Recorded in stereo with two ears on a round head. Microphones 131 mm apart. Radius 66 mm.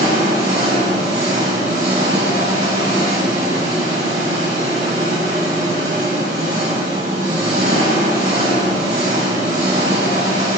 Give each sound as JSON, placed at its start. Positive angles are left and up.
{"t": 0.0, "sound": "an engine running", "side_deg": -75, "distance_m": 5.5}